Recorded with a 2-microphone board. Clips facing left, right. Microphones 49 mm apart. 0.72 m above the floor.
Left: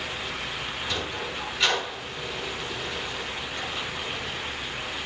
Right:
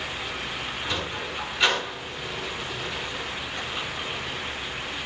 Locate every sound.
0.8 s a sliding door: 15° right (ahead or behind), 6 m